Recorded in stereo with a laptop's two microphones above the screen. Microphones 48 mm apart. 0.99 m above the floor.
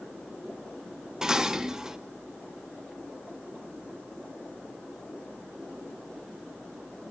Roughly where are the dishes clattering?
Centre.